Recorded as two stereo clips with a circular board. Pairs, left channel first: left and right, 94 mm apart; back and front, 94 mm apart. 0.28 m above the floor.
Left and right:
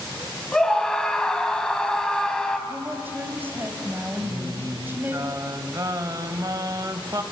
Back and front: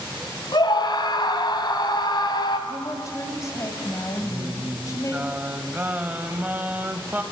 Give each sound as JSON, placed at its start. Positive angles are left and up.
{"t": 0.5, "sound": "a scream", "azimuth_deg": 170, "distance_m": 2.5}
{"t": 2.7, "sound": "a woman speaking", "azimuth_deg": -145, "distance_m": 2.0}
{"t": 4.2, "sound": "singing", "azimuth_deg": -65, "distance_m": 1.0}